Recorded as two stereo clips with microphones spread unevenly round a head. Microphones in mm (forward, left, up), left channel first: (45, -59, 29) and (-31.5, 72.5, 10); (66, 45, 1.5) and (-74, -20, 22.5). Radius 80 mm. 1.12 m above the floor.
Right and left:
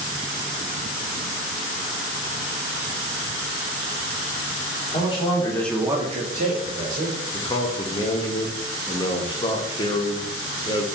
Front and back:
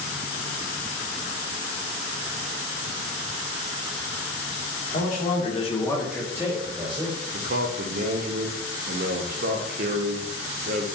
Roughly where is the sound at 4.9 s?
Ahead.